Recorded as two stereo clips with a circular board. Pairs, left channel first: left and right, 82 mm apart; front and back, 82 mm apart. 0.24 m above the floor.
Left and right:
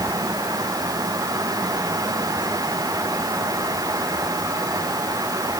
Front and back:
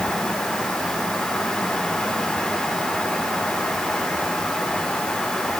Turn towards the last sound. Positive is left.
No sound to turn to.